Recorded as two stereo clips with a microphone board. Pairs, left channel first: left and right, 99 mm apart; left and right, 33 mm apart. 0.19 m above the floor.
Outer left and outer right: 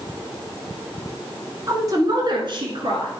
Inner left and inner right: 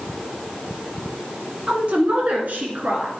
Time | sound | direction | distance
1.7 | a woman speaking | 35° right (ahead or behind) | 1.5 m